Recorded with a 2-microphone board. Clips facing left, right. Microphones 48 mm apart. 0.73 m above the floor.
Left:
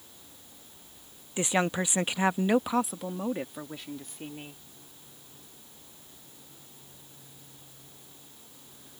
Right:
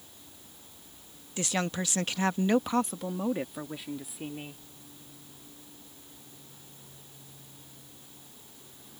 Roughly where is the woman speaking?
Centre.